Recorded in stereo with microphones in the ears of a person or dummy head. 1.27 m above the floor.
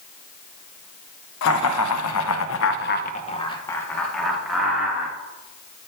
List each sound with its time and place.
1.4 s laughter: 70° left (ahead or behind), 1.0 m; by 5.1 s 10° right (ahead or behind), 1.6 m